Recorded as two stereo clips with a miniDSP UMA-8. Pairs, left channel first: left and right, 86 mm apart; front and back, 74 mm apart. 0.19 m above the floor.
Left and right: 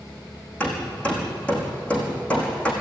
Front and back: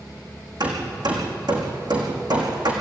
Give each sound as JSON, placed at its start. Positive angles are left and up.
{"t": 0.6, "sound": "hammering", "azimuth_deg": 165, "distance_m": 6.5}